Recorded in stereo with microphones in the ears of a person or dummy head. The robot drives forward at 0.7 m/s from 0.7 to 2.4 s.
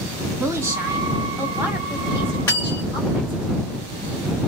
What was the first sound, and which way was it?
A woman speaking, 15° right (ahead or behind).